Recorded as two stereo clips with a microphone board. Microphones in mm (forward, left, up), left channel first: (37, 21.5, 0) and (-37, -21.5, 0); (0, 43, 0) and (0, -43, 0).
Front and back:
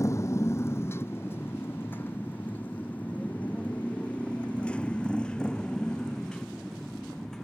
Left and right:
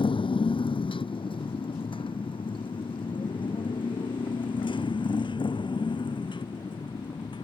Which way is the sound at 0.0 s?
85° left.